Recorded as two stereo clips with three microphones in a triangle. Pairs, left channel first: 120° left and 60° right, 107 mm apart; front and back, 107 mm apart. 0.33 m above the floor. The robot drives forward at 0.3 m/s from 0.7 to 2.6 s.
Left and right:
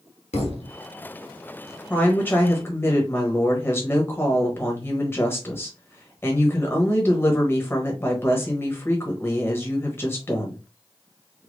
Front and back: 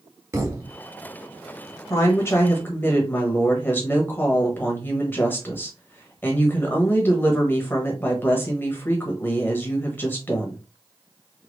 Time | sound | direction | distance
0.3 | a thud | 115° left | 1.1 m
1.9 | a woman speaking | 50° left | 1.3 m